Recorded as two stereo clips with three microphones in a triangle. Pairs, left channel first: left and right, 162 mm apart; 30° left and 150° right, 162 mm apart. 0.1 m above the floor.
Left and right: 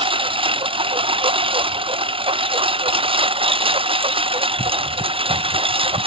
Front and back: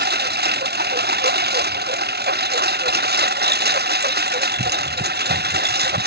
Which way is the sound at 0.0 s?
145° right.